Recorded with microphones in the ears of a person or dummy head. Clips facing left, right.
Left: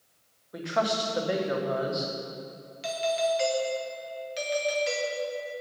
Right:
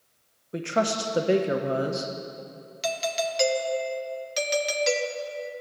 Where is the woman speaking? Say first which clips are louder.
Right 2 dB; 30° right (ahead or behind), 1.0 m.